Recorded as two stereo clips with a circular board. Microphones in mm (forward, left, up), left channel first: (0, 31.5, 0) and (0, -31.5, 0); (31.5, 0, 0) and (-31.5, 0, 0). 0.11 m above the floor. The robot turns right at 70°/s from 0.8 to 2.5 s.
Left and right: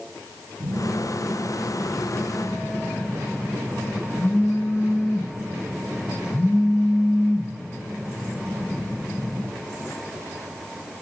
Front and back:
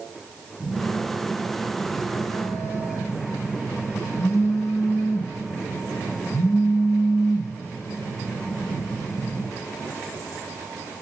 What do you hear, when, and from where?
0.6 s a phone buzzing: 75° right, 3.5 m; by 9.5 s 40° left, 3.5 m